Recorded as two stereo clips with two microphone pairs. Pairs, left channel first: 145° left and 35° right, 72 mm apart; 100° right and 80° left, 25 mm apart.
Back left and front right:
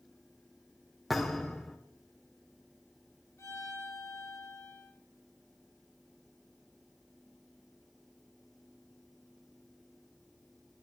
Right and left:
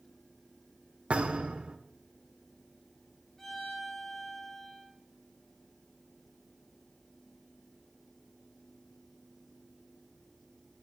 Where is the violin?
170° right, 4 m.